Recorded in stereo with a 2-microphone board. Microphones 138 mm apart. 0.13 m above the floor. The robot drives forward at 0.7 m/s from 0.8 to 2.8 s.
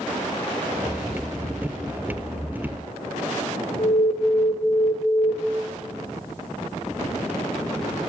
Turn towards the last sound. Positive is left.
turn(degrees=45)  # may be behind; listen again after turning